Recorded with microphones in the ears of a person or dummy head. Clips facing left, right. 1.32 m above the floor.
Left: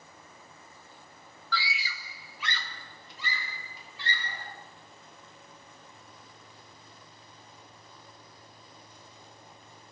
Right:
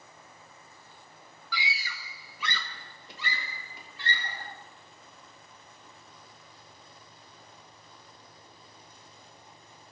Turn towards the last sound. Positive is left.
turn(degrees=-45)  # may be behind; listen again after turning